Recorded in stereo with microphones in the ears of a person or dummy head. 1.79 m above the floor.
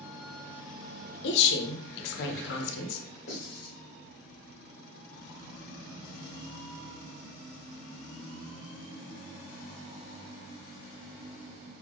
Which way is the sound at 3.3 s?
35° left (ahead or behind).